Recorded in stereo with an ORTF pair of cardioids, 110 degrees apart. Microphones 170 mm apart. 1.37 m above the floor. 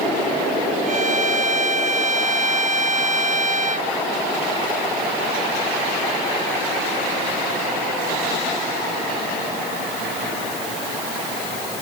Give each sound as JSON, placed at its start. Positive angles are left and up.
{"t": 0.9, "sound": "a violin", "azimuth_deg": -45}